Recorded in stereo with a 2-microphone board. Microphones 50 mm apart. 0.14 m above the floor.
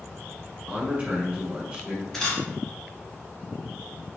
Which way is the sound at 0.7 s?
25° right (ahead or behind).